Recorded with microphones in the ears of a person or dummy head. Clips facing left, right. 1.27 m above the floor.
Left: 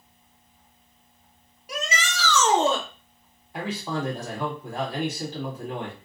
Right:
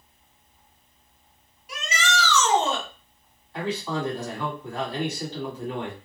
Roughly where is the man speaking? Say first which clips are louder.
Right 1 dB; centre.